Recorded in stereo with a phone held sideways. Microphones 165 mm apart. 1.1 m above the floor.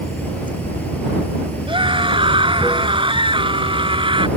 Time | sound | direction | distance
0.0 | running water | 10° left (ahead or behind) | ?
1.7 | a scream | 30° right (ahead or behind) | ?